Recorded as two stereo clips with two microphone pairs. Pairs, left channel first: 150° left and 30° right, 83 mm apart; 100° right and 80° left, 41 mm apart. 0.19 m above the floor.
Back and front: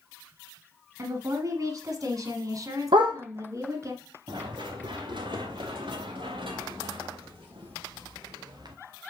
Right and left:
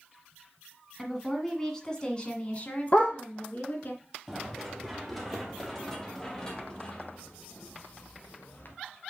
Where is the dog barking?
40° right, 2 m.